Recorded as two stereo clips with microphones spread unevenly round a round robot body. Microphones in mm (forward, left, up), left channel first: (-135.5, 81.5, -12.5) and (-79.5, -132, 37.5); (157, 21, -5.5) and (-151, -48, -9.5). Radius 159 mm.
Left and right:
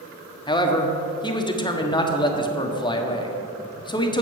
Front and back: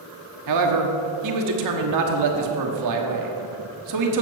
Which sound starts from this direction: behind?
A man speaking, at 0.5 s.